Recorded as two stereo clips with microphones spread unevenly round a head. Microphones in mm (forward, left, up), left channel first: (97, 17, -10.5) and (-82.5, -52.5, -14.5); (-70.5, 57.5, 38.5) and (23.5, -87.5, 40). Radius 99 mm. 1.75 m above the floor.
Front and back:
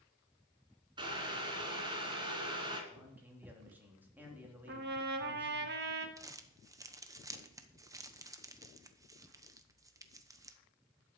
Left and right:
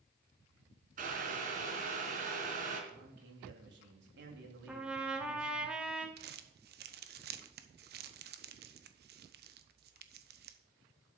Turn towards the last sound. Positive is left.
turn(degrees=-85)